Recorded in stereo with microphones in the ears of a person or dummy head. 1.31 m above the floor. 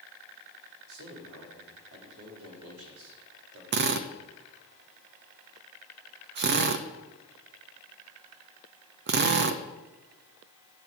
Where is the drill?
45° right (ahead or behind), 0.9 m.